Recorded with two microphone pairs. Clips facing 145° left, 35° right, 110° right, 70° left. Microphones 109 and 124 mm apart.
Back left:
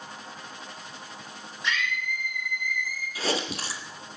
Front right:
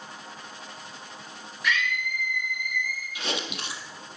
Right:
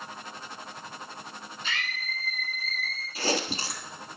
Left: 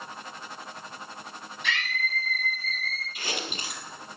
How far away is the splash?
No splash in this recording.